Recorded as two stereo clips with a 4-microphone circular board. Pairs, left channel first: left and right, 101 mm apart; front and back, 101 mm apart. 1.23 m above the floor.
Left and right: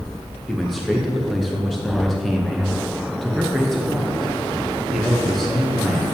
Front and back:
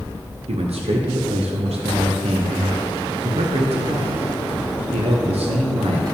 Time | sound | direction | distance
0.5 | a man speaking | straight behind | 0.8 m